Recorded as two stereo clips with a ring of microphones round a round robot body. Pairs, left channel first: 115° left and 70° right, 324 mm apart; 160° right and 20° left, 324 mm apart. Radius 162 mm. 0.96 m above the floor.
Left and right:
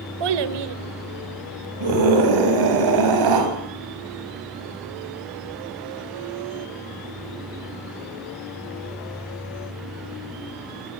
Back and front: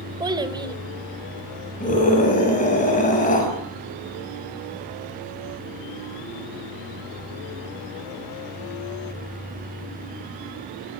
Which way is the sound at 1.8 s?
90° right.